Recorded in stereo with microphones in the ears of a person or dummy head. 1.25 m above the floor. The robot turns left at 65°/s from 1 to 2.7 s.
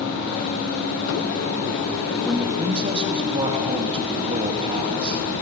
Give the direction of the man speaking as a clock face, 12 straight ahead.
12 o'clock.